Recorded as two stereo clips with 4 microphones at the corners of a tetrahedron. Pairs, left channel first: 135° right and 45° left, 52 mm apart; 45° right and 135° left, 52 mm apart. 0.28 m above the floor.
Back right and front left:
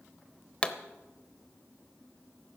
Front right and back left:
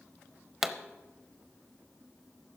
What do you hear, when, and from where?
0.6 s a pop: 150° right, 0.8 m